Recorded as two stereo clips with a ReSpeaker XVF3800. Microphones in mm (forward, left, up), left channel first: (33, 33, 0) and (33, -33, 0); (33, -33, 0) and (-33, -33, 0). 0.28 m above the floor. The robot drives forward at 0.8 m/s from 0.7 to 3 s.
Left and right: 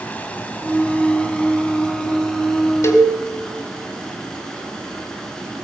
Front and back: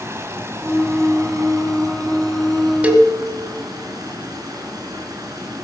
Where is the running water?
150° left, 1.6 m; by 5.6 s 170° left, 3 m.